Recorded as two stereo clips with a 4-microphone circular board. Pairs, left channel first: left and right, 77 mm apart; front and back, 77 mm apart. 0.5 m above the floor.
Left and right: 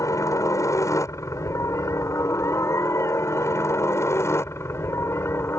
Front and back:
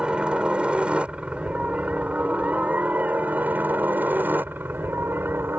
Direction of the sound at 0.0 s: 105° left.